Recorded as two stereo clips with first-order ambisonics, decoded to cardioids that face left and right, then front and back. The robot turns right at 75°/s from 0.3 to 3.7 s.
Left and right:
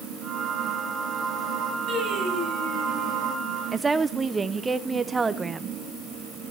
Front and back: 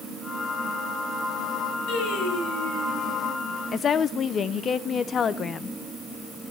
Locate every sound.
1.9 s singing: 30° right, 4.5 m; by 3.5 s 90° left, 4.5 m
3.7 s a woman speaking: 25° right, 0.6 m